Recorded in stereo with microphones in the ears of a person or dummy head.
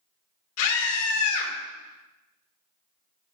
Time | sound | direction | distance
0.6 | a scream | 85° left | 3 m